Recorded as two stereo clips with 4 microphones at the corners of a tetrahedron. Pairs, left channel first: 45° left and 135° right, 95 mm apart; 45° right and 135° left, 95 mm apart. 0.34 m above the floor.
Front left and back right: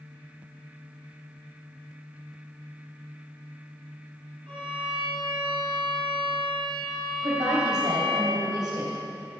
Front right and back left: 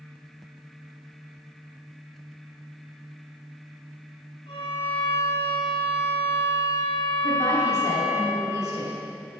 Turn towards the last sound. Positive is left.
turn(degrees=-95)